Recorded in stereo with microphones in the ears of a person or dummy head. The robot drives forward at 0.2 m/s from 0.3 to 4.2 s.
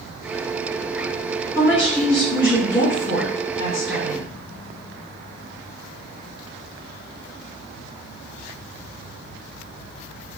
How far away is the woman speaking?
About 1.5 m.